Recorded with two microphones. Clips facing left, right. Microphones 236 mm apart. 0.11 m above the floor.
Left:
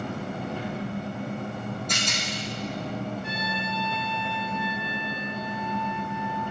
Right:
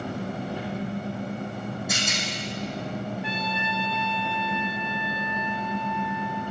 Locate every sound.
0.0 s an engine running: 15° right (ahead or behind), 1.9 m
1.9 s a rattle: 5° right (ahead or behind), 2 m
3.2 s a trumpet: 50° left (ahead or behind), 1.3 m